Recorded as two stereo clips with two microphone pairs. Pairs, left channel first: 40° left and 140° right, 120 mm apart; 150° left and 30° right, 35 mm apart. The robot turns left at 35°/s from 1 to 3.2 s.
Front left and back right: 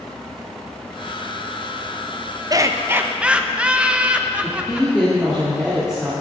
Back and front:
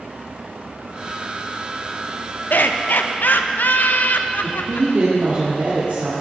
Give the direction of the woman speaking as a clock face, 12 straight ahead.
2 o'clock.